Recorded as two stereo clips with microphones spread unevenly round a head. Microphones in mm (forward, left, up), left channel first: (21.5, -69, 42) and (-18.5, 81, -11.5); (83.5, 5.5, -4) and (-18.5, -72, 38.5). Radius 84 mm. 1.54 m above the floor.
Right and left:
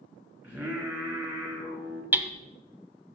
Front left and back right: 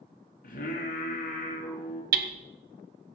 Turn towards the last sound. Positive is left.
turn(degrees=-175)